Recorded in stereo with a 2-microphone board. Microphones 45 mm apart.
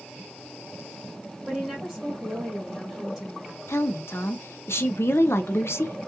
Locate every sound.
1.5 s a woman speaking: 5° right (ahead or behind), 1.0 m
3.7 s a woman speaking: 65° left (ahead or behind), 0.6 m